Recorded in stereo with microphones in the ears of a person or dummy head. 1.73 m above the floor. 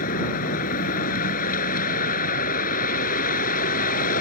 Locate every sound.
0.0 s a vehicle: 50° left (ahead or behind)